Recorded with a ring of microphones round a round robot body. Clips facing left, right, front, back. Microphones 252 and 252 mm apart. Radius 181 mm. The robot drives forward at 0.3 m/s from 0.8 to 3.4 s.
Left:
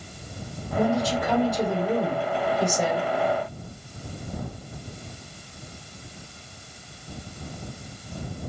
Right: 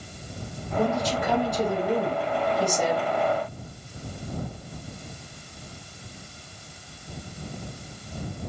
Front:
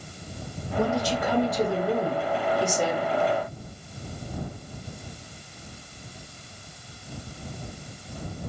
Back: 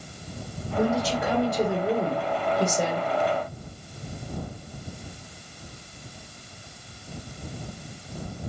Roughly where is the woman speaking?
Behind left.